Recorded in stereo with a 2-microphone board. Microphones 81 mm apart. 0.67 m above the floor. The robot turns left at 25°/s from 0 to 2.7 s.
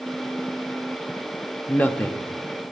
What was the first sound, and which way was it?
A man speaking, 20° left (ahead or behind).